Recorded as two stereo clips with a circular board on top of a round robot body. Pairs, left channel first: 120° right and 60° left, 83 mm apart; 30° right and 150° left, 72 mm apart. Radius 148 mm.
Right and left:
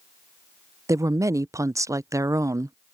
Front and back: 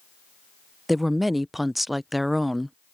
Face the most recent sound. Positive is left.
turn(degrees=65)